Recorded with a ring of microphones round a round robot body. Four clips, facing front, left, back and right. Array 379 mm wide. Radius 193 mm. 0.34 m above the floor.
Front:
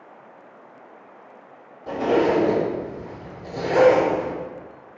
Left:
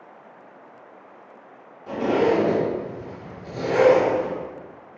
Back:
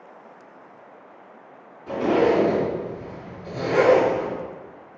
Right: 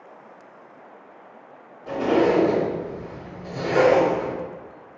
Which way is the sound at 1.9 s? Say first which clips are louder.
Right 1 dB, even; 20° right.